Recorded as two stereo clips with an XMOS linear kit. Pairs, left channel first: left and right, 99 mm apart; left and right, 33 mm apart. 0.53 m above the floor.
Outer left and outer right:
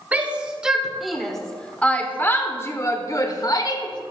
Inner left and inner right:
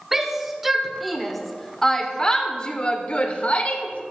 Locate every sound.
0.1 s a shout: 15° right (ahead or behind), 1.8 m; by 4.0 s 50° left (ahead or behind), 2.0 m